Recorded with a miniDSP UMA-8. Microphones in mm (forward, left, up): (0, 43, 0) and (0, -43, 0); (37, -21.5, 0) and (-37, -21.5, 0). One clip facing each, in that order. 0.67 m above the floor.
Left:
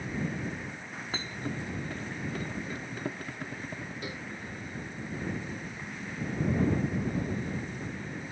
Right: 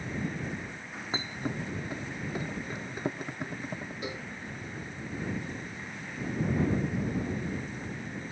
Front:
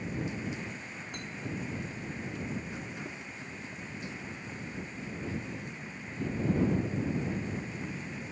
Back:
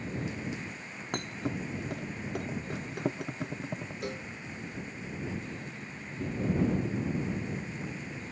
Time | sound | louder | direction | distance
1.1 | a thud | right 2 dB, back 5 dB | 160° right | ?
4.0 | a cowbell | right 2 dB, back 4 dB | 160° right | ?